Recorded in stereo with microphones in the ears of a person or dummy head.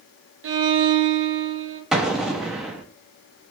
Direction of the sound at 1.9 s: 5° right (ahead or behind).